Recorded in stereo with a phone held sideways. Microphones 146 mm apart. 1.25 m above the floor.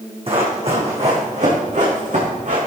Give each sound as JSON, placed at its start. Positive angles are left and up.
{"t": 0.3, "sound": "running footsteps", "side_deg": -40, "distance_m": 4.5}